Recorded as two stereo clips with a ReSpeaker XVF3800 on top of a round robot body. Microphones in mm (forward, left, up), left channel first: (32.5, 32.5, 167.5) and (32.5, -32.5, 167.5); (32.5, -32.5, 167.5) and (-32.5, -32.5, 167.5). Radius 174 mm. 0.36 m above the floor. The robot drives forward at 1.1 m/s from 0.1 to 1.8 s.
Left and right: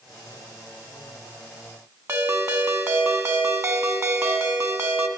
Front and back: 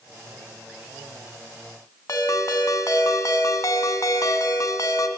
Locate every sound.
2.1 s a ringtone: 40° right, 1.7 m